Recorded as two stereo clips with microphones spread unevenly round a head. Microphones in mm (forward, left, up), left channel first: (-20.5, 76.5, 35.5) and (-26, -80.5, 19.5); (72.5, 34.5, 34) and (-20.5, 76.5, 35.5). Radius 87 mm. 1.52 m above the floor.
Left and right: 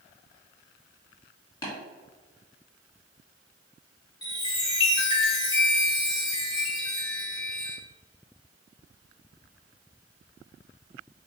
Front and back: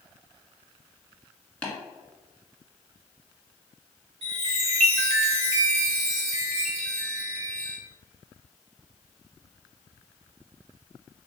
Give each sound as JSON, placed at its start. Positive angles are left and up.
{"t": 1.6, "sound": "tapping", "azimuth_deg": 50, "distance_m": 1.4}
{"t": 4.2, "sound": "a chime", "azimuth_deg": 150, "distance_m": 1.2}